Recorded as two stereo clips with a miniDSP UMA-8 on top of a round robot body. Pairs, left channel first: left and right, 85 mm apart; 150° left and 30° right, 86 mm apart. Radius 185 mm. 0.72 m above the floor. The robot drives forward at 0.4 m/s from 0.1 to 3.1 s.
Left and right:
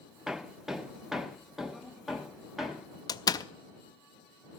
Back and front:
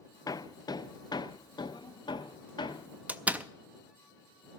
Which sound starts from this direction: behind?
Hammering, at 0.3 s.